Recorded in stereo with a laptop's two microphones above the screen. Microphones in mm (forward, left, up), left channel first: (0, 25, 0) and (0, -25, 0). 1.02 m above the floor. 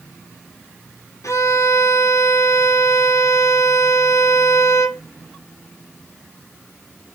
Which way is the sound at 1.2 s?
80° left.